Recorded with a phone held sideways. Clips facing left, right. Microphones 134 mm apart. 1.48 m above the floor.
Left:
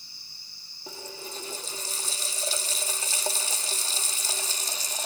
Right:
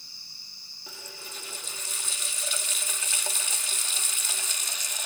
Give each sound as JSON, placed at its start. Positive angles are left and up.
{"t": 0.9, "sound": "a running tap", "side_deg": 35, "distance_m": 1.6}